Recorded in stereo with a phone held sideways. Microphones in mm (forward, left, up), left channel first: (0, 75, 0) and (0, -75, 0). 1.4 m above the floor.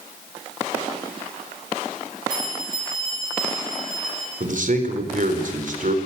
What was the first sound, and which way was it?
A bell, 60° left (ahead or behind).